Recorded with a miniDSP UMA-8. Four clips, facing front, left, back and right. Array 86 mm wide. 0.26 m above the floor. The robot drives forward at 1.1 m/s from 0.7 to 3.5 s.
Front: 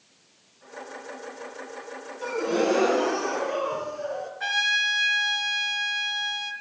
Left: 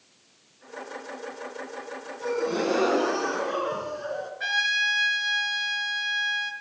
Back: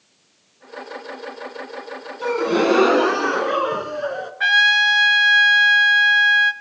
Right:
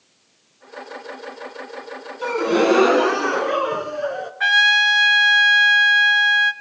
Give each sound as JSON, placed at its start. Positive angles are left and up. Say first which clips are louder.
{"t": 2.2, "sound": "a gasp", "louder": "right 8 dB, back 6 dB", "azimuth_deg": -120, "distance_m": 2.5}
{"t": 4.4, "sound": "a trumpet", "louder": "right 11 dB, back 12 dB", "azimuth_deg": -140, "distance_m": 2.5}